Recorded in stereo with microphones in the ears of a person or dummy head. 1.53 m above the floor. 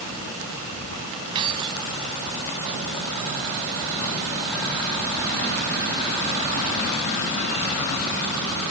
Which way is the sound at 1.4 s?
30° right (ahead or behind).